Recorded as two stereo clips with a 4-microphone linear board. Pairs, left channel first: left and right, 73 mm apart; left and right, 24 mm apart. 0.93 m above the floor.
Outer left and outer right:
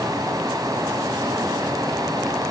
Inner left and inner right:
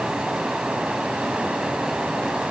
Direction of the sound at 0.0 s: 55° right (ahead or behind).